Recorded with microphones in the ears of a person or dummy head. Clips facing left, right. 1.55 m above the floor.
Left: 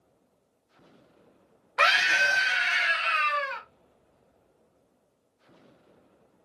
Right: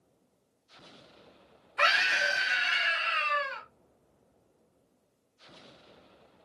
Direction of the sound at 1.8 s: 65° left (ahead or behind).